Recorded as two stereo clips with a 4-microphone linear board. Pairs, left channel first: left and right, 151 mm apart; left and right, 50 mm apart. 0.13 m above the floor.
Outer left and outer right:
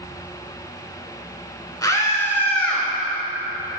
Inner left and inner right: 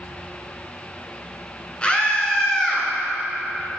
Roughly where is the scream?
Left.